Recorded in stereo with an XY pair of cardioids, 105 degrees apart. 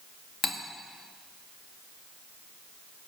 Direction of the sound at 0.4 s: 45° left.